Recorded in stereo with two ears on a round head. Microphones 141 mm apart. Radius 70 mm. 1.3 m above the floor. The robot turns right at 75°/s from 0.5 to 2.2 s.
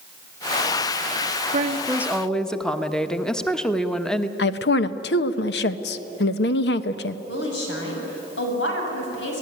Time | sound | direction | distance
1.5 | a woman speaking | 45° right | 1.2 m
4.4 | a woman speaking | 75° left (ahead or behind) | 1.2 m
7.3 | a woman speaking | 80° left | 7.5 m